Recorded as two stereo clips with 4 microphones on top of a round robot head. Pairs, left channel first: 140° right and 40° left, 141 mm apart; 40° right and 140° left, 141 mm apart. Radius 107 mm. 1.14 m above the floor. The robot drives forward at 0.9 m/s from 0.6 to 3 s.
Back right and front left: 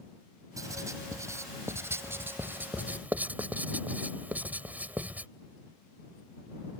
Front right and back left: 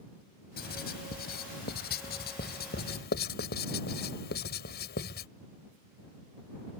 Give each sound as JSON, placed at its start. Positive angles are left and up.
{"t": 0.6, "sound": "writing", "azimuth_deg": -30}